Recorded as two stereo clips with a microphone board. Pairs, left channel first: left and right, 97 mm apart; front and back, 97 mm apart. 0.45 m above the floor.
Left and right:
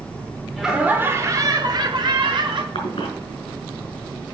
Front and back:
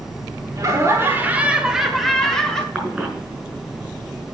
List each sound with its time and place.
0.6 s laughter: 175° right, 1.1 m; by 2.6 s 80° right, 2.0 m
2.8 s a cough: 105° left, 4 m